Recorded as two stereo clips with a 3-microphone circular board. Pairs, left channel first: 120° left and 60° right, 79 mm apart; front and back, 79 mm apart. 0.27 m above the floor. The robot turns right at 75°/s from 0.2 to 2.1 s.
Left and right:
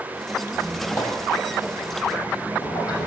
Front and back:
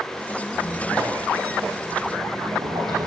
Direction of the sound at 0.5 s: 45° left.